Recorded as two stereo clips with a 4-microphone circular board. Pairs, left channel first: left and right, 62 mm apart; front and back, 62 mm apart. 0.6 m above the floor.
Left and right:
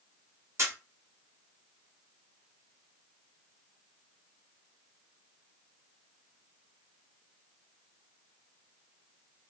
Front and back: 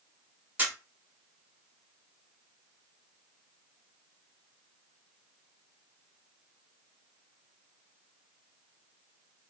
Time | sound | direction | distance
0.6 | a camera shutter | 120° right | 1.0 m